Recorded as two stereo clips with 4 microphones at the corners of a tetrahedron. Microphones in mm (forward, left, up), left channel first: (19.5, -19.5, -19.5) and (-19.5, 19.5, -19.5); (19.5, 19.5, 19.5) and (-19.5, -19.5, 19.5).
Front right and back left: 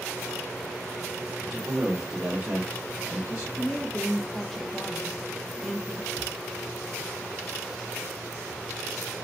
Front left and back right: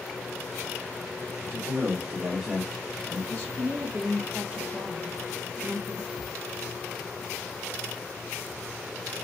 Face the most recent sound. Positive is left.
turn(degrees=-50)